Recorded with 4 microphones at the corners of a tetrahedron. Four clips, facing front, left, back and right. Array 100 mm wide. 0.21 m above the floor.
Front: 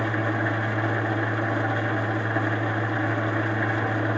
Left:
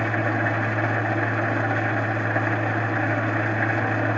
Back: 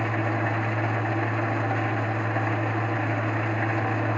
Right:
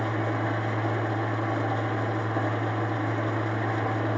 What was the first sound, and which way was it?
An engine running, 75° left.